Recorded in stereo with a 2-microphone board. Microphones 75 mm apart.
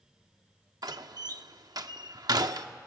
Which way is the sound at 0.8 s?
65° right (ahead or behind).